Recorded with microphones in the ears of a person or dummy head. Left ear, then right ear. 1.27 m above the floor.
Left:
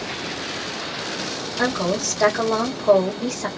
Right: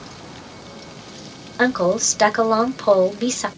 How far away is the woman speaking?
About 1.1 m.